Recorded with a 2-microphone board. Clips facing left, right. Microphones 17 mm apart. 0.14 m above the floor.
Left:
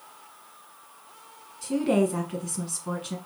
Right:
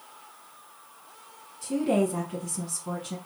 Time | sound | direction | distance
1.6 | a woman speaking | 20° left (ahead or behind) | 1.3 m